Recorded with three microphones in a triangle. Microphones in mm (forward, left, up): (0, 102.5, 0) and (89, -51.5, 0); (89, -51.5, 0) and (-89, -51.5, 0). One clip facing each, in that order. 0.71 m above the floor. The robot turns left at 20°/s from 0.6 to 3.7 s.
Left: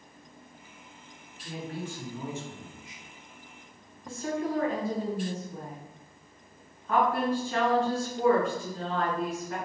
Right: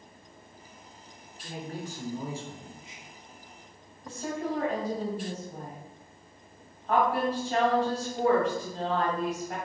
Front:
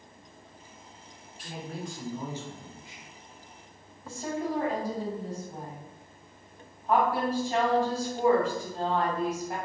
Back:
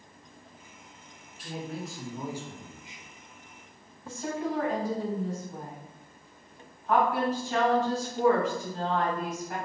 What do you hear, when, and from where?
1.4 s a man speaking: 85° right, 0.7 m; by 3.1 s 120° right, 0.7 m
4.0 s a woman speaking: 55° right, 1.6 m